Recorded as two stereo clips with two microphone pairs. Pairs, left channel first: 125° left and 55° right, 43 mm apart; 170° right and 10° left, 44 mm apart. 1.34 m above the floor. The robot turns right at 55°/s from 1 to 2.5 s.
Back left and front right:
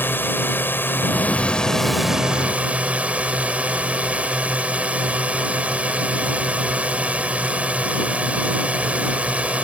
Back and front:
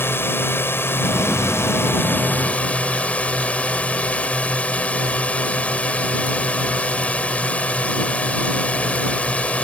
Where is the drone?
165° left; by 9.6 s 115° right.